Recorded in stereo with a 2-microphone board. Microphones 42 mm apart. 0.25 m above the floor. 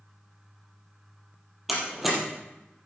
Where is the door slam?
5° right (ahead or behind), 4 m.